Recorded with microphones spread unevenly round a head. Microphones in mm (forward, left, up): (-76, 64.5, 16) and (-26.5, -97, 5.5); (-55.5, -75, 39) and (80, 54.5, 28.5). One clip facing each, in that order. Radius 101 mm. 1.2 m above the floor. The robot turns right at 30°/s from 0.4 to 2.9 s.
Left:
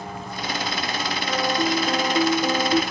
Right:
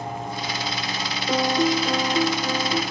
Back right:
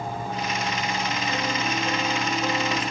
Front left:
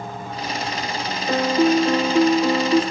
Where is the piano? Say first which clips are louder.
Right 3 dB, front left 16 dB; 5° right, 1.3 m; by 2.8 s 40° left, 1.3 m.